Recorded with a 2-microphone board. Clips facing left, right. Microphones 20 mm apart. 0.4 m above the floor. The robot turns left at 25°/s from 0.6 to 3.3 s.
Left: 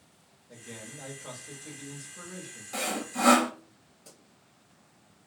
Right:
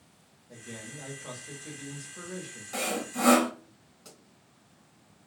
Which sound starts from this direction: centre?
Sawing, at 2.7 s.